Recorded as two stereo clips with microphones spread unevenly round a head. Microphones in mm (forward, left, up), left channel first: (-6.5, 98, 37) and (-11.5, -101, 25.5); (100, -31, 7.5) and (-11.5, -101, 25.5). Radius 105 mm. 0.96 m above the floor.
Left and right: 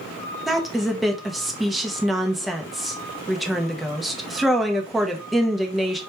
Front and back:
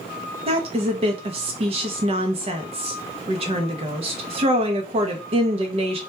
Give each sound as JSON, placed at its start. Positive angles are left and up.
{"t": 0.5, "sound": "a woman speaking", "azimuth_deg": -175, "distance_m": 0.5}